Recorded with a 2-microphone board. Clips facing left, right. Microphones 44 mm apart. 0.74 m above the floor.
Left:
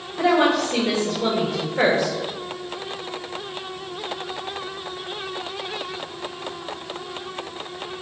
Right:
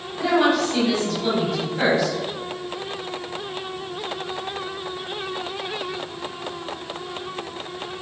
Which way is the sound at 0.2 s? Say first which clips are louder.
Left 1 dB; 55° left (ahead or behind).